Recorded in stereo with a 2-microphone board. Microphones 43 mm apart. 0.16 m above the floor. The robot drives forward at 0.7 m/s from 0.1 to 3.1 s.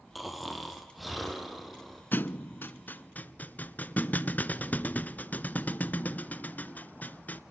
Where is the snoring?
Centre (ahead or behind), 3 m.